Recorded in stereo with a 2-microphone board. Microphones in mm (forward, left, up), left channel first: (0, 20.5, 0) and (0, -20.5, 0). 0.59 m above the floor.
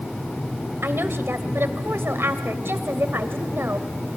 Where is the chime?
No chime in this recording.